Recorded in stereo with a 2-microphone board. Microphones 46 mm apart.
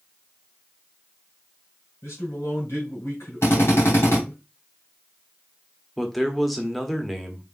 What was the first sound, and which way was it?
A man speaking, 70° left (ahead or behind).